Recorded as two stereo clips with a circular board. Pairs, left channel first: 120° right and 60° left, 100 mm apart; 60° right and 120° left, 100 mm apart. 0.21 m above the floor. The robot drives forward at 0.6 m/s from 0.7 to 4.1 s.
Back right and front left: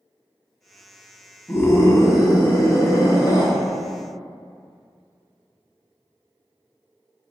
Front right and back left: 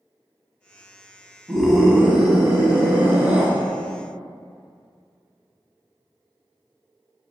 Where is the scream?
155° right, 1.5 m; by 3.5 s 170° right, 2.5 m.